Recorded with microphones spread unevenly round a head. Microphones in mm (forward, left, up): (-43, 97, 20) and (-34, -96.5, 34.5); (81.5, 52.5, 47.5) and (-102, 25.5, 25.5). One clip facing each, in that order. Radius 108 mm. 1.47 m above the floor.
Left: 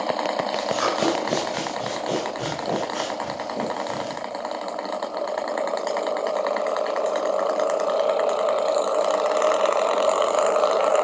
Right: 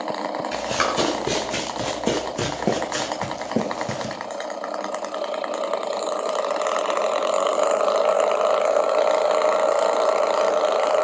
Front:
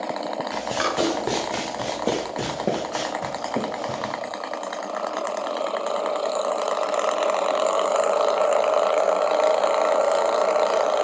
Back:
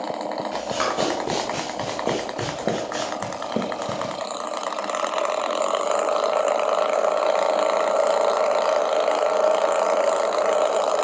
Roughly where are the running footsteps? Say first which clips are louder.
Even, front 1 dB; ahead right.